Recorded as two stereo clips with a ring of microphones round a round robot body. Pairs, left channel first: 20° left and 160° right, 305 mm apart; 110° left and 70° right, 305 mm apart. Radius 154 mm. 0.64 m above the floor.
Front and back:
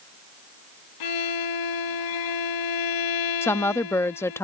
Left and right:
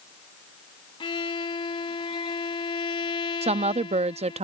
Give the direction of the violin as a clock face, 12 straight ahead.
11 o'clock.